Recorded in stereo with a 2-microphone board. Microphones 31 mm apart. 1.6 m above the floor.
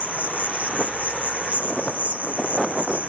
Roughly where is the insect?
Right.